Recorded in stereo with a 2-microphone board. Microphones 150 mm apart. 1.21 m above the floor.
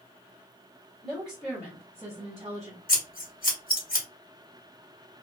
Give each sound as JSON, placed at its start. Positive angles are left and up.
{"t": 1.0, "sound": "a woman speaking", "side_deg": 0, "distance_m": 1.4}
{"t": 2.9, "sound": "scissors", "side_deg": 70, "distance_m": 1.3}